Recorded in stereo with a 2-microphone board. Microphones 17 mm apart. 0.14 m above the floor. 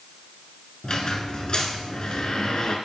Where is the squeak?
45° left (ahead or behind), 1.1 m.